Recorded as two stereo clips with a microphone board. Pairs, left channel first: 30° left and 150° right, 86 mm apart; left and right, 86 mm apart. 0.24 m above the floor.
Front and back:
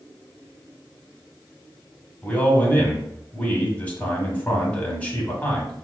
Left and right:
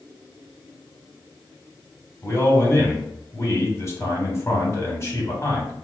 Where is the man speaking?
85° left, 1.4 m.